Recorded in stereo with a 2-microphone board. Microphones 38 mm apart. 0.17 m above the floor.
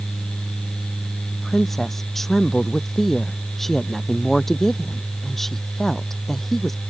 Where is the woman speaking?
5° left (ahead or behind).